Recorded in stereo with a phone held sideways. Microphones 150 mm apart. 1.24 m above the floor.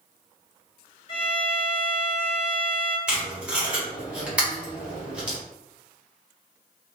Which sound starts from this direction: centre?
Tape being pulled, at 3.1 s.